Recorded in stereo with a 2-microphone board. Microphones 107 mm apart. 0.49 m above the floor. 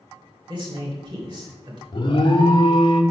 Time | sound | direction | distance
0.5 | a man speaking | 40° right (ahead or behind) | 2 m
1.9 | an alarm | 45° left (ahead or behind) | 0.7 m